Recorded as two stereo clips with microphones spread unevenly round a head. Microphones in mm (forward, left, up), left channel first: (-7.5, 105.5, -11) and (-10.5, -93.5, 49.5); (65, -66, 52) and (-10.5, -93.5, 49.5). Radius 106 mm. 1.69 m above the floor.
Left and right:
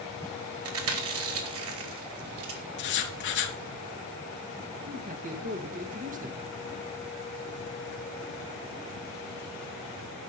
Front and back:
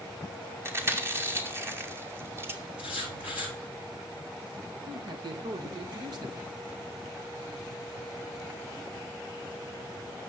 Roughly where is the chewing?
Right.